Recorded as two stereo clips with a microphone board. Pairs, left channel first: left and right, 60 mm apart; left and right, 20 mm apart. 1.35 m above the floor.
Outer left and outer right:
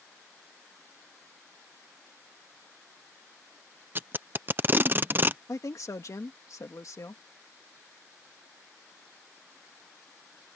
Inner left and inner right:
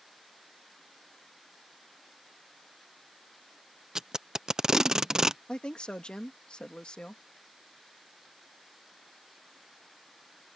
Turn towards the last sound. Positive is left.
turn(degrees=65)  # may be behind; listen again after turning